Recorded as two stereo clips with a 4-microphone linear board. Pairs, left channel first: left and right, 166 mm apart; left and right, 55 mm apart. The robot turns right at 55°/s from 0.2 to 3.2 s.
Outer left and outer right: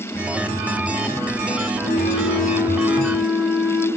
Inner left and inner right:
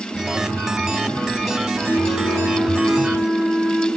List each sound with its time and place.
1.8 s a flute: 85° right, 2.5 m; by 3.9 s 10° right, 2.5 m